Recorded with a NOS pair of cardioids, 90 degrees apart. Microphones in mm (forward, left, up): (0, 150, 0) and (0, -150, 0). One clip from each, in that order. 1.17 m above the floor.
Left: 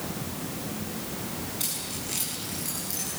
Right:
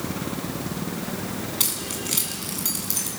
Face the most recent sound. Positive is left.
turn(degrees=-65)